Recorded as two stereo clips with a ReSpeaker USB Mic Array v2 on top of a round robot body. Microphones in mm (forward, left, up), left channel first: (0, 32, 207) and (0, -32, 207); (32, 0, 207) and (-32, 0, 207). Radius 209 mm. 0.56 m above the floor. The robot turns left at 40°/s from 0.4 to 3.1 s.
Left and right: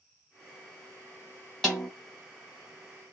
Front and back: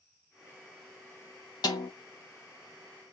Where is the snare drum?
15° left, 0.8 m; by 1.9 s straight ahead, 0.8 m.